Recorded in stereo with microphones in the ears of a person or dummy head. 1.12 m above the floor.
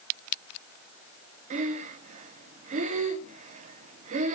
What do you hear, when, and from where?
1.5 s breathing: 40° right (ahead or behind), 1.0 m